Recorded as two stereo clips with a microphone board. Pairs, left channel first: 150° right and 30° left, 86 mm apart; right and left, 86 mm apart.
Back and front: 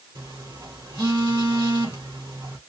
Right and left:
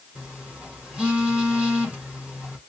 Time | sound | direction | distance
0.1 | a phone buzzing | 15° left | 1.7 m